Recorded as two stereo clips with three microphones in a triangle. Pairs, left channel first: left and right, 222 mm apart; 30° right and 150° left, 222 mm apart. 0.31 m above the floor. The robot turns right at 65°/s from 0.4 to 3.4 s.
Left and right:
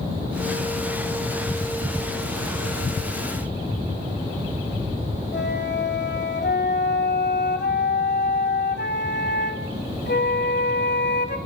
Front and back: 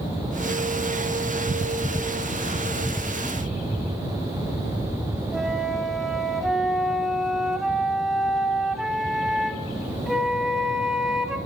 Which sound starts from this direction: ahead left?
A flute, at 5.3 s.